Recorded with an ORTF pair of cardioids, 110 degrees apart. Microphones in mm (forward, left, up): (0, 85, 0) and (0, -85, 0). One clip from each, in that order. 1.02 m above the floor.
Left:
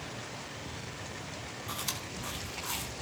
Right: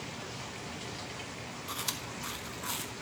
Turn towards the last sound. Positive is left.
turn(degrees=-5)